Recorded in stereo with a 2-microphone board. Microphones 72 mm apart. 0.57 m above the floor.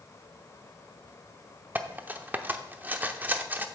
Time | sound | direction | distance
1.8 | cutlery clinking | 25° right (ahead or behind) | 0.6 m